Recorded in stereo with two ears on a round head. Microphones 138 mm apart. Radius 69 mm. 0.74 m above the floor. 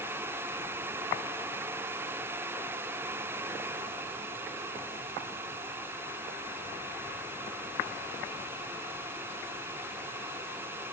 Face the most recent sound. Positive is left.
No sound to turn to.